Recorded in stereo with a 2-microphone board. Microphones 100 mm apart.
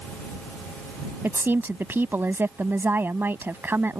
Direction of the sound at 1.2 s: 25° right (ahead or behind).